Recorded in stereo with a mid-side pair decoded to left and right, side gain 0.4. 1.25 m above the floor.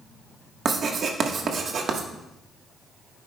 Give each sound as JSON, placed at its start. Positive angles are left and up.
{"t": 0.7, "sound": "writing", "azimuth_deg": -60, "distance_m": 1.3}